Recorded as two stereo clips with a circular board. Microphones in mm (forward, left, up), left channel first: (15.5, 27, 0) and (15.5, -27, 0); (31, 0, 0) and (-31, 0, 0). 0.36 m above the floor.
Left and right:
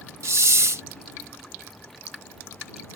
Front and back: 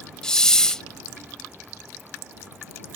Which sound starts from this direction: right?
A hiss, at 0.2 s.